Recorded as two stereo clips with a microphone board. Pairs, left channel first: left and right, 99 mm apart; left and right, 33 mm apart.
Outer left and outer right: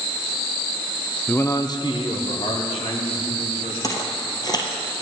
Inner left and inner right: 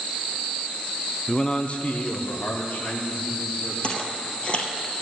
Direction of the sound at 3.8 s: 35° left (ahead or behind).